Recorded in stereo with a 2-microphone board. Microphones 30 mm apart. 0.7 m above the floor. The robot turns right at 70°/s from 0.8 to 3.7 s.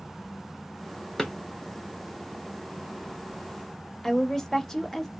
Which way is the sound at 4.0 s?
15° left (ahead or behind).